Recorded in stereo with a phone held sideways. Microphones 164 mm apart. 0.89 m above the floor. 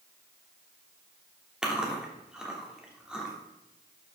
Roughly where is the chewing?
Centre.